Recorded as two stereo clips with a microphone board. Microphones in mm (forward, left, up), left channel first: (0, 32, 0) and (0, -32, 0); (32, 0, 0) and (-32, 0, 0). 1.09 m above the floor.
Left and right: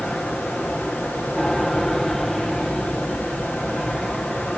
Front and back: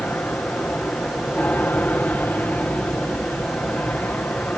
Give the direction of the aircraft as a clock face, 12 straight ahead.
12 o'clock.